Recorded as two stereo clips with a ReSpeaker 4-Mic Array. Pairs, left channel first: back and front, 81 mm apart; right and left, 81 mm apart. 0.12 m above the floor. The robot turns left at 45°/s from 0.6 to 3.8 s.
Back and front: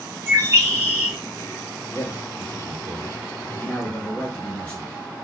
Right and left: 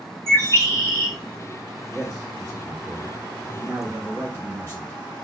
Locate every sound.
0.3 s a bird: 50° right, 1.6 m; by 1.1 s 75° right, 1.6 m
1.9 s a man speaking: 160° right, 2.0 m; by 4.9 s 115° left, 2.0 m